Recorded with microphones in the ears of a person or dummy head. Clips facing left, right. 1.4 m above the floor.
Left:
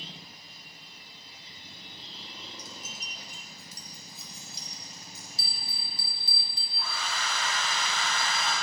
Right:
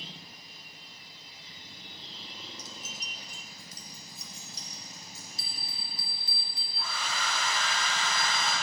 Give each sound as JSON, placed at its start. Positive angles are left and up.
{"t": 2.6, "sound": "keys jangling", "side_deg": -60, "distance_m": 0.6}
{"t": 5.4, "sound": "a bell", "side_deg": 30, "distance_m": 0.8}
{"t": 6.8, "sound": "a hair dryer", "side_deg": 40, "distance_m": 2.5}